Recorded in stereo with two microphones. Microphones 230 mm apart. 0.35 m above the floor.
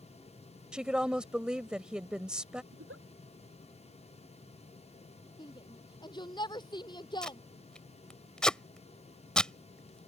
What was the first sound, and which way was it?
A woman speaking, 5° right (ahead or behind).